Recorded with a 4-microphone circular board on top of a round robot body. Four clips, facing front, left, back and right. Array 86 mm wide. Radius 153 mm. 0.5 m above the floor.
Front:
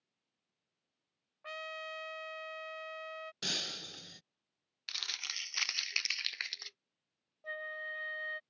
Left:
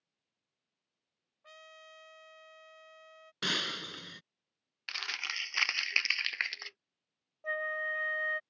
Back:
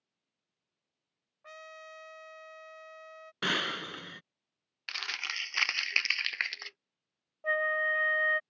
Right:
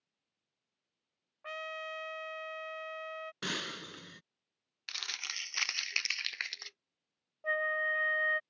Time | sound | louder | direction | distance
1.4 | a trumpet | right 13 dB, front 5 dB | 75° right | ?
3.4 | breaking glass | left 7 dB, back 12 dB | 170° left | ?
4.9 | crumpling | left 5 dB, back 8 dB | 145° left | ?
7.4 | a flute | right 3 dB, back 13 dB | 170° right | ?